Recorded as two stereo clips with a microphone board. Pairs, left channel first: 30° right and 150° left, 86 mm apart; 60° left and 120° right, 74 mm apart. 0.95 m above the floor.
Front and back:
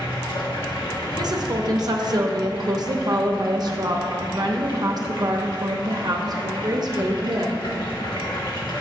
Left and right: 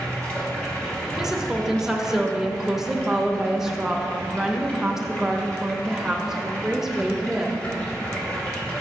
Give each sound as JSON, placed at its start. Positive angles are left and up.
{"t": 0.0, "sound": "running water", "azimuth_deg": -15, "distance_m": 1.2}
{"t": 1.2, "sound": "a woman speaking", "azimuth_deg": 155, "distance_m": 0.6}